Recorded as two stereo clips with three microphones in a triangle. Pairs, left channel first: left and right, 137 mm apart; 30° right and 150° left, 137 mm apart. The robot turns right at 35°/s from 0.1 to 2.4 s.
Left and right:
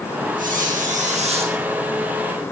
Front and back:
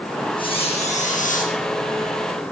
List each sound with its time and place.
0.4 s a squeak: 85° right, 8.5 m; by 1.5 s 40° right, 8.5 m